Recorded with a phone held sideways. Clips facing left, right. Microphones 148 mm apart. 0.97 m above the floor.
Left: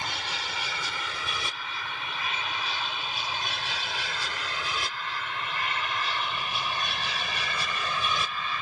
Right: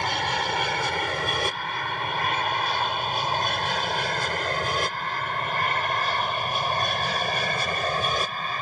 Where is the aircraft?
55° right (ahead or behind); by 8.6 s 45° right (ahead or behind).